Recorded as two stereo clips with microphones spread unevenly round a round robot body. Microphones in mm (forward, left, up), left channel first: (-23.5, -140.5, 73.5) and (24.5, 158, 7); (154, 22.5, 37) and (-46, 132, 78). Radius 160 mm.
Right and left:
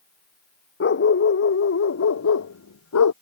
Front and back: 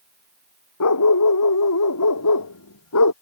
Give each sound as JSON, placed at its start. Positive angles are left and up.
{"t": 0.8, "sound": "a dog barking", "azimuth_deg": -45}